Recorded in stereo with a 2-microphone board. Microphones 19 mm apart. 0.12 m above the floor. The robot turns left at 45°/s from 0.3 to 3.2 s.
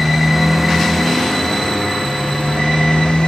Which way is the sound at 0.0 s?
165° right.